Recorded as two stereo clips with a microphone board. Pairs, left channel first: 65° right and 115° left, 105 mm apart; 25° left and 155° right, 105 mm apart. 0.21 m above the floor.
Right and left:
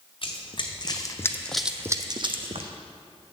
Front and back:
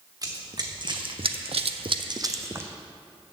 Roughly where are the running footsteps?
Right.